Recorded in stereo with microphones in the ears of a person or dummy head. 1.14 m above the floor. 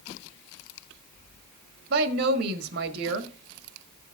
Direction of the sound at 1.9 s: 60° right (ahead or behind).